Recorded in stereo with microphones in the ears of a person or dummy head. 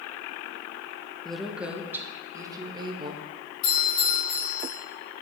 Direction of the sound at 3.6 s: 55° left (ahead or behind).